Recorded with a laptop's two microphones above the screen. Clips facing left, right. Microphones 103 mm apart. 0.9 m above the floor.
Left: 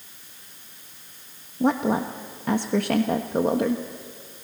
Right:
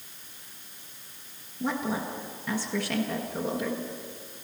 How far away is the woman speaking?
About 1.3 m.